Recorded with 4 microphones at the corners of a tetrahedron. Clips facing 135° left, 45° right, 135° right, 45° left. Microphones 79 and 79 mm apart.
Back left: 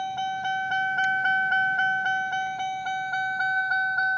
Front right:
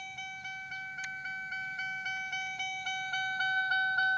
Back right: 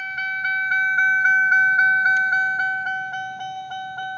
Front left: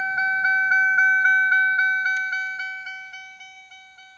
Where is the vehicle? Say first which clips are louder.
Back left 16 dB, front left 4 dB; 105° left; by 4.2 s 155° right.